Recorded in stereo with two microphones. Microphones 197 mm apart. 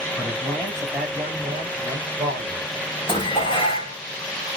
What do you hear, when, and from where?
0.2 s a man speaking: 10° left (ahead or behind), 1.6 m; by 2.6 s 35° right (ahead or behind), 1.7 m
3.1 s dishes clattering: 25° left (ahead or behind), 0.9 m